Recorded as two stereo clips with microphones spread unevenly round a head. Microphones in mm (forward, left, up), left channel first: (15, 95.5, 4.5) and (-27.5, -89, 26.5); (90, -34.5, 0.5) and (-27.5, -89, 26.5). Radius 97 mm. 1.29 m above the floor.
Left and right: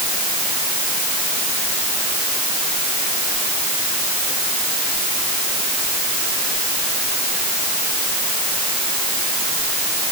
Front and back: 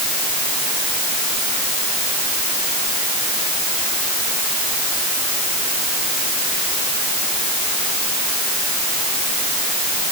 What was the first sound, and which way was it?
Only background noise.